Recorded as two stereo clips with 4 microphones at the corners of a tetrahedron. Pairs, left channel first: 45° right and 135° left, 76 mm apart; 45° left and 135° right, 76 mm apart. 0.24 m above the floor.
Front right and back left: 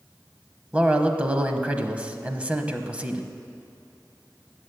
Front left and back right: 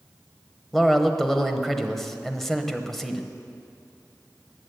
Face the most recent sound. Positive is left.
turn(degrees=125)